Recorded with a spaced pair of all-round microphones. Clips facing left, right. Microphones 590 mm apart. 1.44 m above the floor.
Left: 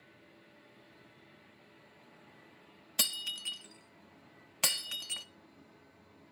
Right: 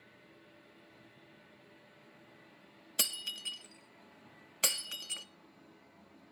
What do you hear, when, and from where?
3.0 s breaking glass: 25° left (ahead or behind), 0.5 m